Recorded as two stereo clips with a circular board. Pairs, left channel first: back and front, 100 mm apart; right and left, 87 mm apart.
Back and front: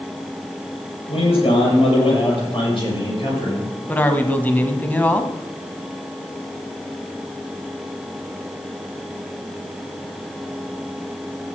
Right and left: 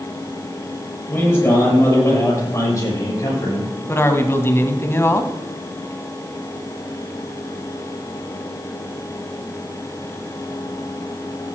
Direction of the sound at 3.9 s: 120° right.